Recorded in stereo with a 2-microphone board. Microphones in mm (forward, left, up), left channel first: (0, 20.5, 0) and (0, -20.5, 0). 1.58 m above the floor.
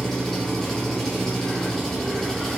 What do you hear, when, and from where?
0.0 s an engine running: 10° left (ahead or behind), 3 m